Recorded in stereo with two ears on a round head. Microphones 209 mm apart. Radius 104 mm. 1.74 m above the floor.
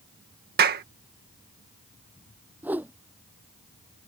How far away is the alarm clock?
I don't hear an alarm clock.